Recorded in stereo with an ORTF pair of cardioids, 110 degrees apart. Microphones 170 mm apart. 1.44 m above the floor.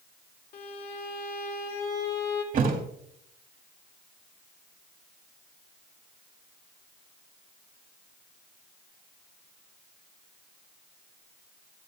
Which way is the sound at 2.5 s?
60° right.